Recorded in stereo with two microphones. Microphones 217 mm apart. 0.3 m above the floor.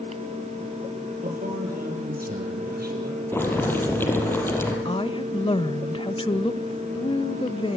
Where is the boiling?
10° left (ahead or behind), 4.5 m.